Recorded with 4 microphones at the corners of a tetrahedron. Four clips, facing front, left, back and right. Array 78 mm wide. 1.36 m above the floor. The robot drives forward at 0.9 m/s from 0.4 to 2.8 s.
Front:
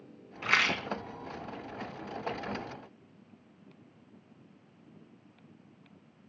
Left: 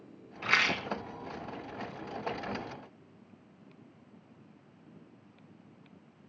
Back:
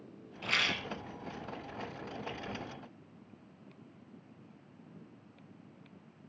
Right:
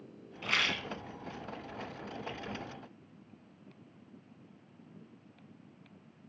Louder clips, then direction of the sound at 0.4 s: Left 4 dB, front 5 dB; 35° left.